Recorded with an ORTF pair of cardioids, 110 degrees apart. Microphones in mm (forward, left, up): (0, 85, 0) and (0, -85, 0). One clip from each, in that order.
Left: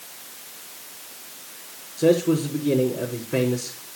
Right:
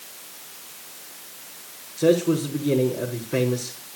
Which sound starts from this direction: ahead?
A man speaking, at 2.0 s.